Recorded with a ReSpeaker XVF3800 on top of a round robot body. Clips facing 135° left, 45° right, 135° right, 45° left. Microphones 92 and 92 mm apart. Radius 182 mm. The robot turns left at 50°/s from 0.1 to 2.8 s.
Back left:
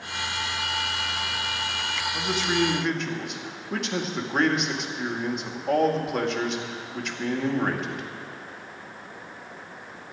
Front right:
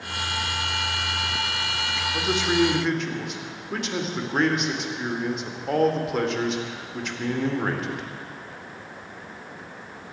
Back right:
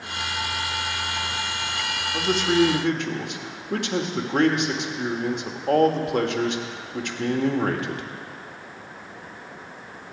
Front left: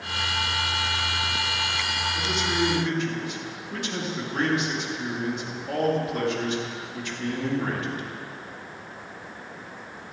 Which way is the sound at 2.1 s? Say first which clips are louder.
Front right 3 dB, back right 8 dB; 105° right.